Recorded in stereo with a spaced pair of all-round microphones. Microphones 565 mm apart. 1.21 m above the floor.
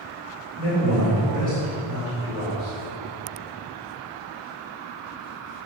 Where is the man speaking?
80° left, 2 m.